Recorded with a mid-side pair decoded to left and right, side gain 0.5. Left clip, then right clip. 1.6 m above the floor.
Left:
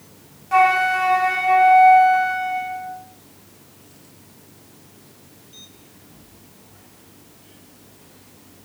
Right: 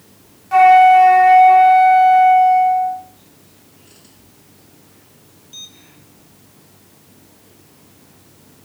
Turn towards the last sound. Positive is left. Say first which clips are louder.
# right 9 dB
turn(degrees=0)